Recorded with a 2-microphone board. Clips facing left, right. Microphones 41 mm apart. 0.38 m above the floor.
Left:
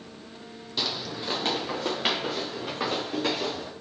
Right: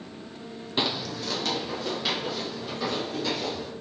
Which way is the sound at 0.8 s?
25° right (ahead or behind).